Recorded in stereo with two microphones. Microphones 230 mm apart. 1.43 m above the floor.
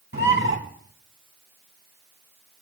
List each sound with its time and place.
0.1 s a bird: 60° right (ahead or behind), 3.5 m